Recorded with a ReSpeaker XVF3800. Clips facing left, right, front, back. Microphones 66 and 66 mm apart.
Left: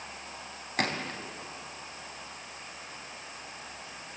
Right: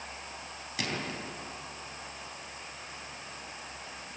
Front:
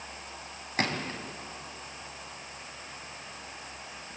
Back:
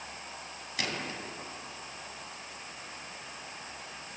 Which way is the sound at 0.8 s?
50° left.